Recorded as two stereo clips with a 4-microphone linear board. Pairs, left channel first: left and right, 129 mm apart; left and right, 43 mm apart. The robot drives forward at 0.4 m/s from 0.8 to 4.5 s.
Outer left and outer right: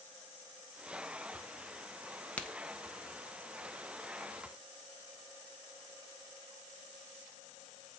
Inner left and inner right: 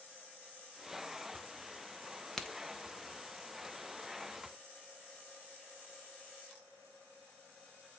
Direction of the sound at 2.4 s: 10° left (ahead or behind).